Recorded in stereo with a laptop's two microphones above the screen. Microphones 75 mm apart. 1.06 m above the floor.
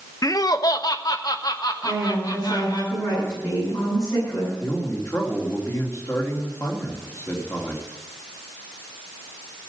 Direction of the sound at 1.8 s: 50° left (ahead or behind).